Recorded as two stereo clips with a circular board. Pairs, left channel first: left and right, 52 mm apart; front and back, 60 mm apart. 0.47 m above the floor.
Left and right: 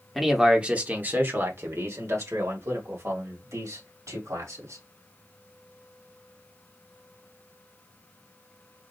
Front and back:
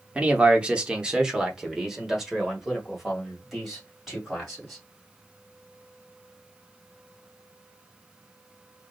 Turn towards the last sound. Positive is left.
turn(degrees=-90)